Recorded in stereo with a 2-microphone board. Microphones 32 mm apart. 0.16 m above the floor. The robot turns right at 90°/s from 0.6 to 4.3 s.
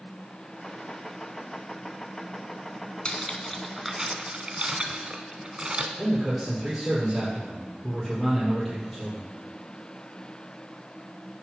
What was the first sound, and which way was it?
Cutlery clinking, 25° left (ahead or behind).